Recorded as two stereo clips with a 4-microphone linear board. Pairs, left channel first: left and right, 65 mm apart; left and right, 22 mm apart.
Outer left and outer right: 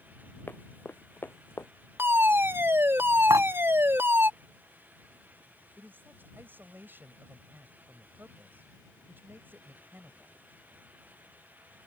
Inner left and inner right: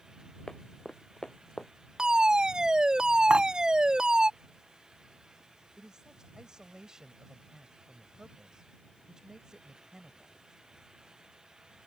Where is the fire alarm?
35° right (ahead or behind).